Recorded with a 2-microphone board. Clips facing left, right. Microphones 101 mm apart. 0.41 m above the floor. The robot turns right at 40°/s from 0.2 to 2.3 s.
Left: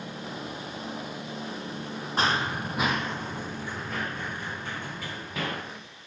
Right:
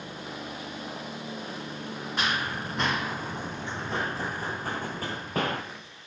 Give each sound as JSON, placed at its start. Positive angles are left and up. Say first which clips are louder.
{"t": 2.2, "sound": "running footsteps", "louder": "left 4 dB", "side_deg": 35, "distance_m": 0.7}